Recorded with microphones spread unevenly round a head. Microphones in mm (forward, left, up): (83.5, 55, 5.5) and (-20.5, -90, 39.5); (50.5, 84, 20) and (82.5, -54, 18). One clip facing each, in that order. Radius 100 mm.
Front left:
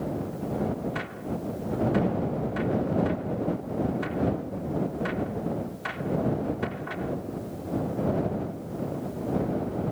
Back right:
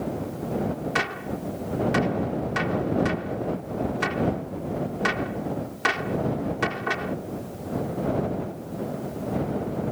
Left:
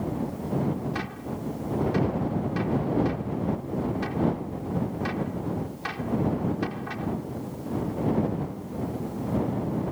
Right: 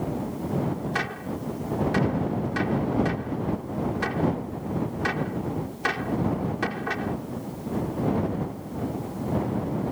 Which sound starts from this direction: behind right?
A gunshot, at 0.9 s.